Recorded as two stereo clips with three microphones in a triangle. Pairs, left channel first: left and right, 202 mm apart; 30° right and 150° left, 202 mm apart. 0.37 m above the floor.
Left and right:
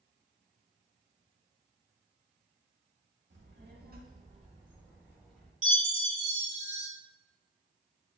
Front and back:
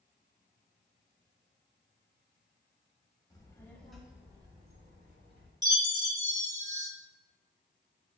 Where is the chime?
140° right, 1.2 m.